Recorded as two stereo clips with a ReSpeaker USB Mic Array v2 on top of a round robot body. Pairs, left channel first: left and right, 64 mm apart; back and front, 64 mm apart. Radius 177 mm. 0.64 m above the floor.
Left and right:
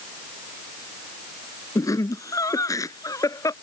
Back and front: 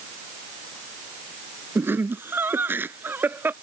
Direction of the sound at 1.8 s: 55° left.